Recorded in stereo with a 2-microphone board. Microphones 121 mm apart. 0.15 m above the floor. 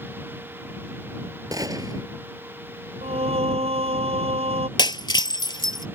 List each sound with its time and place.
1.5 s a gunshot: 35° right (ahead or behind)
3.0 s singing: 60° right (ahead or behind)
4.8 s breaking glass: 40° left (ahead or behind)